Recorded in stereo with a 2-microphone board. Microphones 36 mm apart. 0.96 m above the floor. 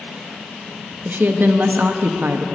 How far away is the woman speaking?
About 0.7 m.